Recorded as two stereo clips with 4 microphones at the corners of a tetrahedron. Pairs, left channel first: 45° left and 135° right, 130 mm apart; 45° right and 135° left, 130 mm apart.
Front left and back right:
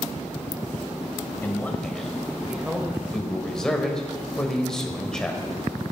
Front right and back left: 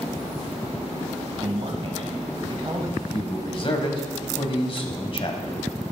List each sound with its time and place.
1.4 s a man speaking: 115° left, 2.0 m; by 3.0 s 170° left, 1.6 m
3.1 s a man speaking: 40° right, 1.7 m